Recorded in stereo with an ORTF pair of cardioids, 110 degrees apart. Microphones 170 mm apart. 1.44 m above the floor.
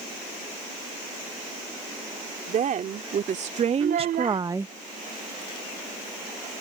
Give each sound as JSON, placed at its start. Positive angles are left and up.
{"t": 2.5, "sound": "a woman speaking", "azimuth_deg": -50}
{"t": 3.8, "sound": "a child speaking", "azimuth_deg": -60}